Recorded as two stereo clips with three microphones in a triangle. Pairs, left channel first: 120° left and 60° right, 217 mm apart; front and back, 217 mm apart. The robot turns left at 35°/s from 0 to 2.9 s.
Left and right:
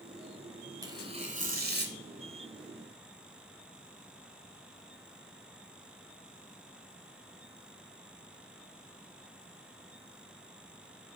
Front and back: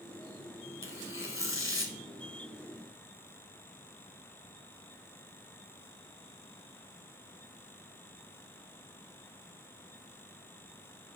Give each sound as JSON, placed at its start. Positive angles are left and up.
{"t": 0.8, "sound": "tearing paper", "azimuth_deg": 15, "distance_m": 1.0}